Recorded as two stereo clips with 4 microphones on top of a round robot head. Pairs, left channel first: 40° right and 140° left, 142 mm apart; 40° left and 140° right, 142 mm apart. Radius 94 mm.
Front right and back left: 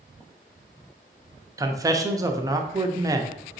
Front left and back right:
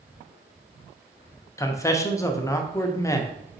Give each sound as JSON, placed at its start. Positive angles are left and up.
{"t": 1.6, "sound": "a man speaking", "azimuth_deg": 90, "distance_m": 0.6}